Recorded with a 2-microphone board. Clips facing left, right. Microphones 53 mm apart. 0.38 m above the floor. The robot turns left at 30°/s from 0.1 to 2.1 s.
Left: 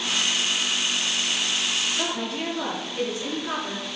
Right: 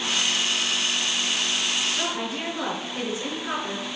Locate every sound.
2.0 s a woman speaking: 15° right (ahead or behind), 5.5 m; by 3.9 s 20° right (ahead or behind), 5.5 m